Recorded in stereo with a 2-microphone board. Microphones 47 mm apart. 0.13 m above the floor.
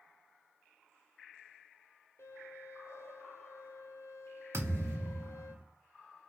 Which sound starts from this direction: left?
A violin, at 2.2 s.